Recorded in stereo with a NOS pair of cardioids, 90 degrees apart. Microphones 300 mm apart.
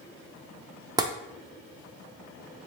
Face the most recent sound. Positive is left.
turn(degrees=-15)